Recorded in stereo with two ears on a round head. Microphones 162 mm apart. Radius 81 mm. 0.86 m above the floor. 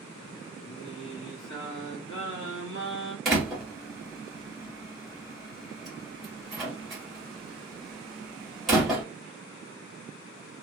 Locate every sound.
0.6 s singing: 70° left (ahead or behind), 1.0 m
3.2 s a door slam: centre (ahead or behind), 1.2 m